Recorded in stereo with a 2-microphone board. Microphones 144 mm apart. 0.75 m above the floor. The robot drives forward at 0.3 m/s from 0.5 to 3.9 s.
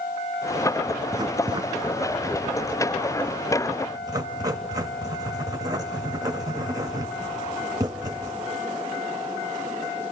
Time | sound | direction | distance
1.1 | writing | 30° right (ahead or behind) | 0.7 m